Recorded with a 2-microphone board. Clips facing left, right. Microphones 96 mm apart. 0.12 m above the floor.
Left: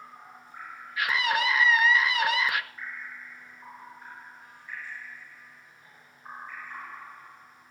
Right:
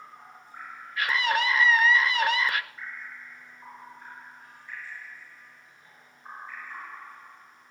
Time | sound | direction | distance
1.0 | a scream | 5° left (ahead or behind) | 1.3 m